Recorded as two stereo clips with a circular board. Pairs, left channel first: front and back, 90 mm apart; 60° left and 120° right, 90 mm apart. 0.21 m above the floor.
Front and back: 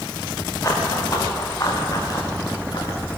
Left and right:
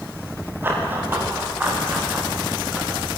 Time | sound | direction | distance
0.6 | running footsteps | 55° right | 6.5 m